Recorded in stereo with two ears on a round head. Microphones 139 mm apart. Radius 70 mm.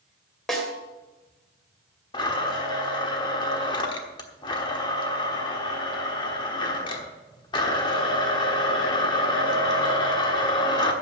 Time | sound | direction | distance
0.5 | a snare drum | centre (ahead or behind) | 2.0 m
2.1 | a blender | 30° left (ahead or behind) | 1.2 m